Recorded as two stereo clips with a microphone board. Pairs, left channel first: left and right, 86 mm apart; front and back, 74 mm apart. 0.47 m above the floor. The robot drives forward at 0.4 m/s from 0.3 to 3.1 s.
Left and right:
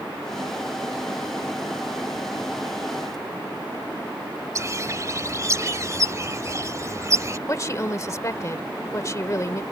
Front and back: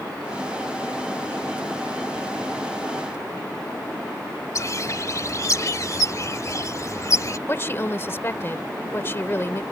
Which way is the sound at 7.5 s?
45° left.